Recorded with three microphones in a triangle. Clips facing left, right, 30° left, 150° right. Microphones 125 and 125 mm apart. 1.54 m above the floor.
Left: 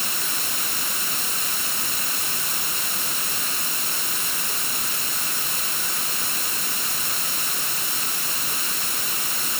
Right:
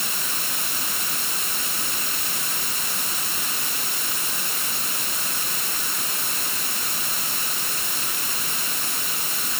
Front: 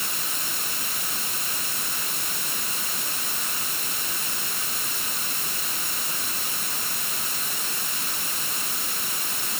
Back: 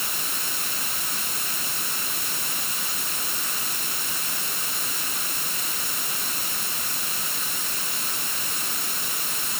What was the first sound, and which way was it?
Only background noise.